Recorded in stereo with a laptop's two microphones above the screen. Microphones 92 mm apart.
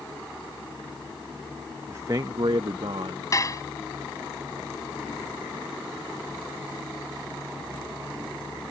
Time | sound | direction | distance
1.9 | a man speaking | 25° right (ahead or behind) | ?
3.3 | dishes clattering | 40° left (ahead or behind) | ?